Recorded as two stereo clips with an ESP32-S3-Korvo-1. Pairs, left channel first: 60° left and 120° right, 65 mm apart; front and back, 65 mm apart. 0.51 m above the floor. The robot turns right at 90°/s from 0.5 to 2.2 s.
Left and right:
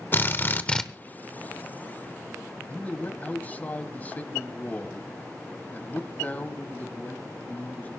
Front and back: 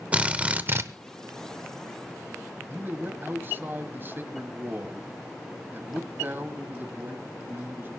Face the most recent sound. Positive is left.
turn(degrees=125)